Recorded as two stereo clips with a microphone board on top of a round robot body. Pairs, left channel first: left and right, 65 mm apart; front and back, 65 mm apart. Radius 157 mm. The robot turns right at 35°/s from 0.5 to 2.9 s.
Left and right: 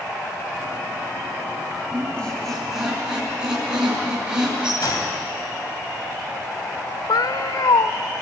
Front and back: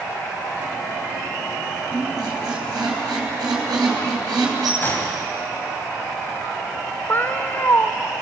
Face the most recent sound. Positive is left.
turn(degrees=65)